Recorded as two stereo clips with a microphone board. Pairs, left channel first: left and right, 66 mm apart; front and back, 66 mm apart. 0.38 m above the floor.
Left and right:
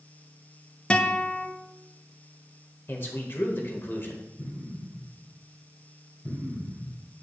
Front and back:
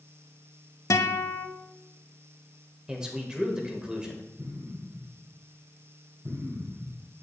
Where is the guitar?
20° left, 0.6 m.